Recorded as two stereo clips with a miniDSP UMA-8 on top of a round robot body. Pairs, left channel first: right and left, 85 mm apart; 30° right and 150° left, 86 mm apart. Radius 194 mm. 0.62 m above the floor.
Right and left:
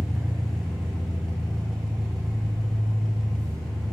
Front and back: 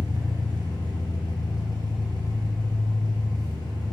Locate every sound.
0.0 s an engine running: 175° right, 1.7 m